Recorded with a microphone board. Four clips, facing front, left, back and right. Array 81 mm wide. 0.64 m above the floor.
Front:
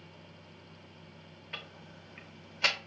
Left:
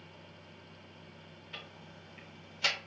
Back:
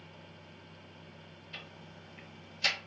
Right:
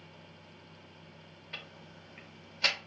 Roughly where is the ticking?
Ahead.